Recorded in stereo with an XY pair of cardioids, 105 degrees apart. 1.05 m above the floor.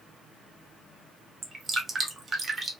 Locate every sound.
1.4 s dripping: 35° right, 0.9 m